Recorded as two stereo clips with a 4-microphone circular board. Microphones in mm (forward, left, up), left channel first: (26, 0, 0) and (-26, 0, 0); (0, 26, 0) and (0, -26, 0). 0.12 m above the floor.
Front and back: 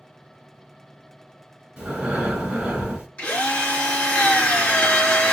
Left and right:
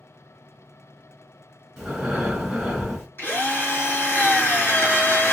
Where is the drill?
65° left, 2 m.